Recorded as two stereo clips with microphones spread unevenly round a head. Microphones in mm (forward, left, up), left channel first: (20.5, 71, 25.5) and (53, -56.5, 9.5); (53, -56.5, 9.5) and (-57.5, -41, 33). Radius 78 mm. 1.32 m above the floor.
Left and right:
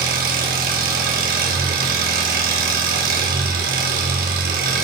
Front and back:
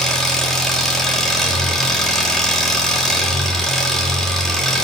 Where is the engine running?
95° right, 3 m.